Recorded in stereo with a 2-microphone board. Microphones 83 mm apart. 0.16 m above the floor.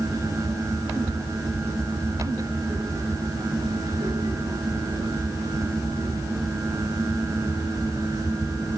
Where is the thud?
No thud in this recording.